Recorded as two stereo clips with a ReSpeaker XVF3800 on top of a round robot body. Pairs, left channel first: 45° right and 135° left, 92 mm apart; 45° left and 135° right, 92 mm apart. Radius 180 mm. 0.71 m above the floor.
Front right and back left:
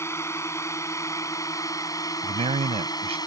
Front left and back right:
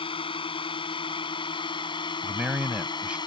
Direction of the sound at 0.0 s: 15° left.